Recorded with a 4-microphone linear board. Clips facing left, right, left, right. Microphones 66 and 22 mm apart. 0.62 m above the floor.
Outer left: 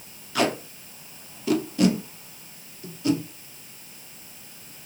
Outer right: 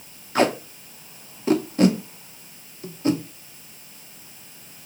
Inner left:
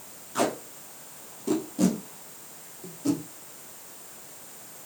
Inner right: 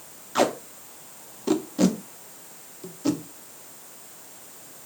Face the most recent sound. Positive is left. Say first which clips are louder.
# outer right 4 dB, inner right 4 dB
turn(degrees=-35)  # may be behind; listen again after turning